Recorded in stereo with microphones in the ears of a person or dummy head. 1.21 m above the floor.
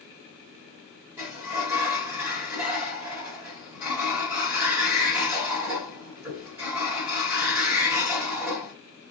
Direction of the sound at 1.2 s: 10° right (ahead or behind).